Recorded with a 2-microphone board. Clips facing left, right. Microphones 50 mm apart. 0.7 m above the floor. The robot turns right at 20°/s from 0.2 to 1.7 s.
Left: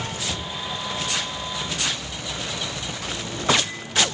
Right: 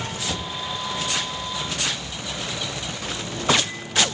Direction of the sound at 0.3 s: 5° right (ahead or behind).